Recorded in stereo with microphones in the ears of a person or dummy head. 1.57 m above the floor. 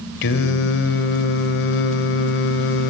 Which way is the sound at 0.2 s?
60° left (ahead or behind).